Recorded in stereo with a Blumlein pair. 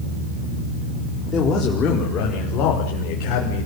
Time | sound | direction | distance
1.3 | a man speaking | 20° left | 5 m